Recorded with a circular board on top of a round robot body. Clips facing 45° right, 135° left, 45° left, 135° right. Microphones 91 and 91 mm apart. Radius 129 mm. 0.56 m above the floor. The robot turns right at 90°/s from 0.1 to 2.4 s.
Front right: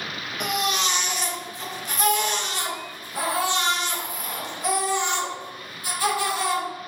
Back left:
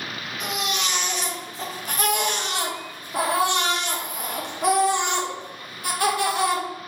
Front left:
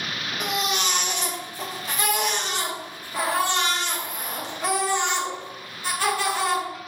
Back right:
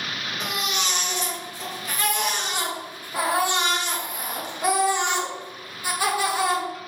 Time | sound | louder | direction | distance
0.4 | a baby crying | front right 3 dB, front left 3 dB | 30° right | 1.3 m